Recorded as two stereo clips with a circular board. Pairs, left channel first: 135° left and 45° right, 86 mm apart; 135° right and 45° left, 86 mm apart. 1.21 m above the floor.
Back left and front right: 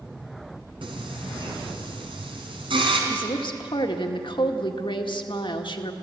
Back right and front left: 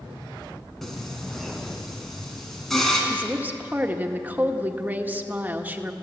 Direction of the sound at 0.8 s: 50° right.